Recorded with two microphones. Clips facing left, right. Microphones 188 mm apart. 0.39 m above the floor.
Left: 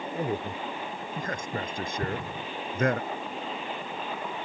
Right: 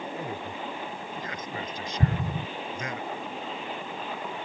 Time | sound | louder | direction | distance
0.1 | a man speaking | left 4 dB | 40° left (ahead or behind) | ?
2.0 | an explosion | right 7 dB | 55° right (ahead or behind) | ?